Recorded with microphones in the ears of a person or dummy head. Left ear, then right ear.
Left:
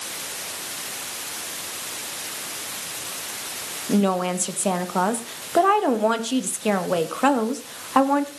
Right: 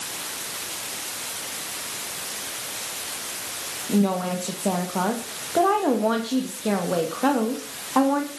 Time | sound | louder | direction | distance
3.9 | a woman speaking | left 3 dB | 50° left (ahead or behind) | 2.0 m